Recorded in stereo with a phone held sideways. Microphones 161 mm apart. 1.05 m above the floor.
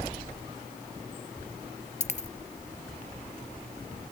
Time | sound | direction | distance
2.0 | a dropped coin | 45° left (ahead or behind) | ?